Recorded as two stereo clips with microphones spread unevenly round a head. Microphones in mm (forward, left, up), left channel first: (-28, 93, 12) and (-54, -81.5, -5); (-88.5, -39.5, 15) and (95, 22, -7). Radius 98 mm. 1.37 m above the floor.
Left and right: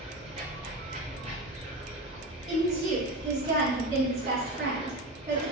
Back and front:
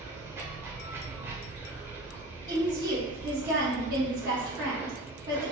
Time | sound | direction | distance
0.0 | running water | 60° right | 1.2 m
2.5 | a woman speaking | 40° right | 1.9 m